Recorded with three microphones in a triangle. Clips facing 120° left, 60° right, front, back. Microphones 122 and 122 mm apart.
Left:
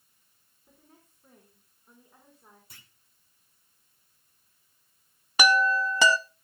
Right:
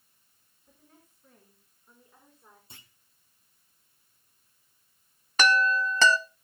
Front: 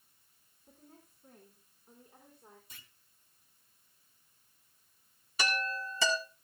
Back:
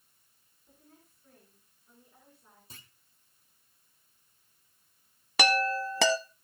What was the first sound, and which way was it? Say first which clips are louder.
A woman speaking: left 1 dB, front 2 dB; 55° left.